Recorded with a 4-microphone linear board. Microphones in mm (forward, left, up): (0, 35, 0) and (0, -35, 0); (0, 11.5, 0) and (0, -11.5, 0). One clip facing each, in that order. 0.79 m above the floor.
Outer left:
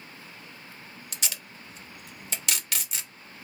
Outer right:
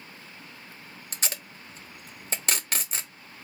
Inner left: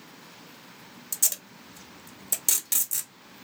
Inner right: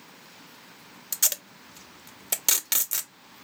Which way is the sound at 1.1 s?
40° right (ahead or behind).